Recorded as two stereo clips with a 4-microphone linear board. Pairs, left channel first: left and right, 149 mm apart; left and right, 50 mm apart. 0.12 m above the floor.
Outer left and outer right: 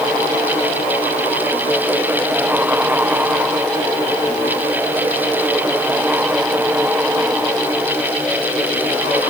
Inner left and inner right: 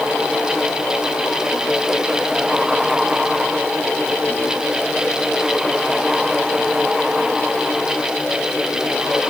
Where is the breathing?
I don't hear breathing.